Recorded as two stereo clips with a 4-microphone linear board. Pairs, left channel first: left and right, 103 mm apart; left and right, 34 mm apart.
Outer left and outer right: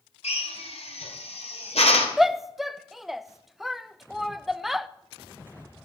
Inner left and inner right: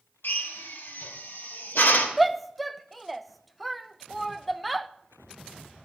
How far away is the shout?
About 0.5 m.